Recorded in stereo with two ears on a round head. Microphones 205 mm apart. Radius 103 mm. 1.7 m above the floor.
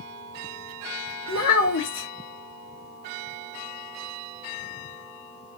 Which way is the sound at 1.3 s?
70° left (ahead or behind).